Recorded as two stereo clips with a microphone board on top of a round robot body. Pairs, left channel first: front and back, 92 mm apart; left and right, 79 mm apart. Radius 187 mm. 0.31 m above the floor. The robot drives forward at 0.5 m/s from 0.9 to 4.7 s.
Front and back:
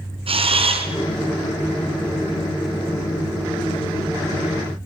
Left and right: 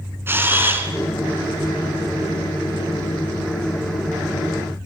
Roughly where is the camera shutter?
Behind right.